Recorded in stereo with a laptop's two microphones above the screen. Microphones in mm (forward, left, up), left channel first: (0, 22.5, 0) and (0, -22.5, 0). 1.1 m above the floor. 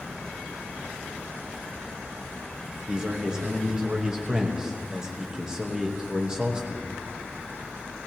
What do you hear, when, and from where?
2.9 s a man speaking: 15° right (ahead or behind), 1.0 m